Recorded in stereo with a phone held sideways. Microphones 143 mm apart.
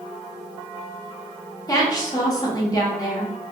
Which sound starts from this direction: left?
A woman speaking, at 1.7 s.